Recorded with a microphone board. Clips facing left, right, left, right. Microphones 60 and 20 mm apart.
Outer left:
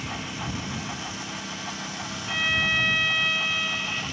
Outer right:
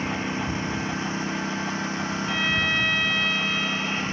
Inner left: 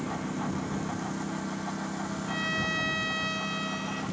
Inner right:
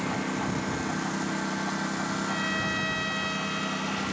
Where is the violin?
Centre (ahead or behind).